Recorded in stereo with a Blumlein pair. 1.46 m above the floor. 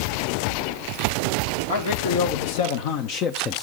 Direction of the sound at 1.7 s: 65° left.